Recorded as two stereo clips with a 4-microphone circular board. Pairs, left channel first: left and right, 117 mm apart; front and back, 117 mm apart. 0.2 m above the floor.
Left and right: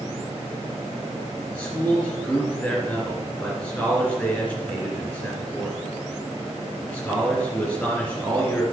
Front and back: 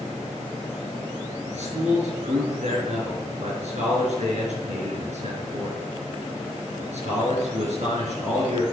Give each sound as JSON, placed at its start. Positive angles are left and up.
{"t": 1.5, "sound": "a man speaking", "azimuth_deg": 160, "distance_m": 3.5}